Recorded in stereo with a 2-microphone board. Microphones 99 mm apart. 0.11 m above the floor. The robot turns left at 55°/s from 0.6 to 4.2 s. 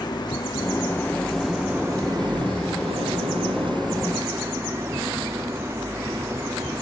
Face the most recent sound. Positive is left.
turn(degrees=-155)